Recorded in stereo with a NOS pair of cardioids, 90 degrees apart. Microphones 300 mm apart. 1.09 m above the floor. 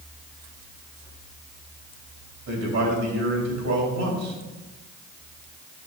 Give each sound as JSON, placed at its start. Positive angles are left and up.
{"t": 2.5, "sound": "a man speaking", "azimuth_deg": -65, "distance_m": 3.0}